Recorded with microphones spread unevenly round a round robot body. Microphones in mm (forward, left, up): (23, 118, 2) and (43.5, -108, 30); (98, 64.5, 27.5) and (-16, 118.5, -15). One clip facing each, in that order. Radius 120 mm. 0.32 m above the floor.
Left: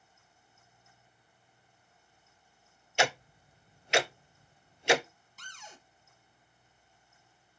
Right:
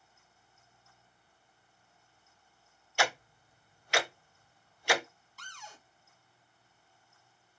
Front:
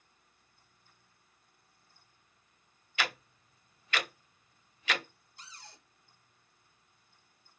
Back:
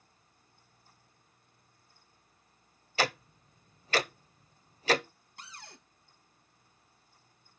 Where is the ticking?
150° left, 0.7 m.